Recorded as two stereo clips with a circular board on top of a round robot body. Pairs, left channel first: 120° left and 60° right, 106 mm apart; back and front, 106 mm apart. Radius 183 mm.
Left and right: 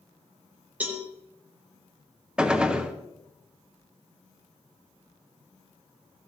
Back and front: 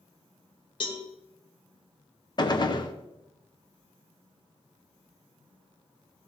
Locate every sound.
0.8 s a cowbell: 135° right, 0.9 m
2.4 s a gunshot: 140° right, 1.1 m